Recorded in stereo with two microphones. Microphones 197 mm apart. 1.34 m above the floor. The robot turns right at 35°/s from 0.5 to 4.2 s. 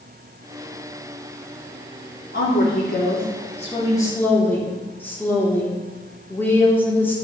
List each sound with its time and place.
2.3 s a woman speaking: 105° left, 3 m; by 7.1 s 170° left, 3 m